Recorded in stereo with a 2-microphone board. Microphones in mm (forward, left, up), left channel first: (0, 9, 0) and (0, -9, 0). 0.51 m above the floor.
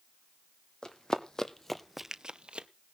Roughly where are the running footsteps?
Left.